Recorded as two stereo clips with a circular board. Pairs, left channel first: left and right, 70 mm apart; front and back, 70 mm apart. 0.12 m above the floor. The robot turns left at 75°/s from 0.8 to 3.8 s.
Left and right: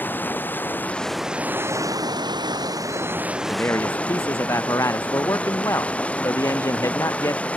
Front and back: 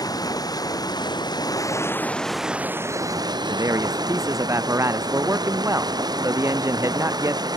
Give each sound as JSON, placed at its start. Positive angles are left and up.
{"t": 0.0, "sound": "running water", "azimuth_deg": 25}
{"t": 3.5, "sound": "a man speaking", "azimuth_deg": 160}